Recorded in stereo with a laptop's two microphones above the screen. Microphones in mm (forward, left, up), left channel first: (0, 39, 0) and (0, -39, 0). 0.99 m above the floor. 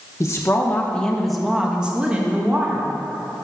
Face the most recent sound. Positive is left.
turn(degrees=-25)  # may be behind; listen again after turning